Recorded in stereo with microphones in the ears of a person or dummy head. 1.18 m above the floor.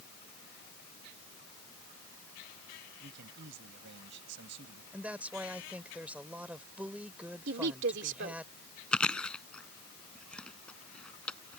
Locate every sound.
3.0 s a man speaking: 75° right (ahead or behind)
4.9 s a woman speaking: 10° right (ahead or behind)
7.5 s a woman speaking: 75° right (ahead or behind)
8.9 s chewing: 10° left (ahead or behind)